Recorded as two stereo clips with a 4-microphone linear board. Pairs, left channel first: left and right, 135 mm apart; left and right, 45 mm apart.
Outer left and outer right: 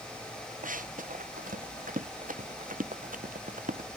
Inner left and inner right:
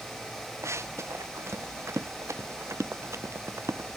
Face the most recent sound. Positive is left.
turn(degrees=-80)